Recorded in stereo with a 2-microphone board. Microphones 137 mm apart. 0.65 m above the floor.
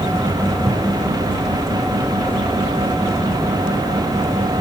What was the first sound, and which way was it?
Only background noise.